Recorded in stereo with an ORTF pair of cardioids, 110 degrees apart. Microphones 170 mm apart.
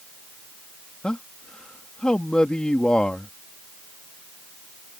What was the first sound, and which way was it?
A man speaking, 5° left.